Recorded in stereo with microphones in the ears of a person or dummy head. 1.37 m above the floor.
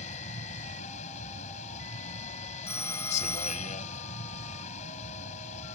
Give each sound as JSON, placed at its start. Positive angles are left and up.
{"t": 0.0, "sound": "a vehicle", "side_deg": 45}
{"t": 2.7, "sound": "a phone ringing", "side_deg": 15}